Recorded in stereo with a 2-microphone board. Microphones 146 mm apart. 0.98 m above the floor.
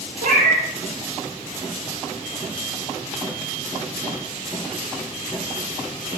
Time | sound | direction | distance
0.2 | a cat meowing | 60° right (ahead or behind) | 0.6 m